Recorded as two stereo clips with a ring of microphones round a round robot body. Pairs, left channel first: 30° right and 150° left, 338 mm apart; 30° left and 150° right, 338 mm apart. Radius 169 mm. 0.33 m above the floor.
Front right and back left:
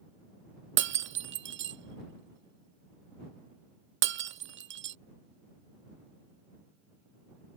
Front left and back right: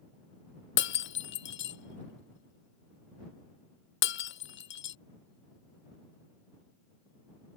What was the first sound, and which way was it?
Breaking glass, 90° left.